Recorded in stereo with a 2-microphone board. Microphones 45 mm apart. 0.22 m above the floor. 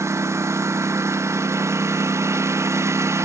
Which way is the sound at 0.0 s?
80° right.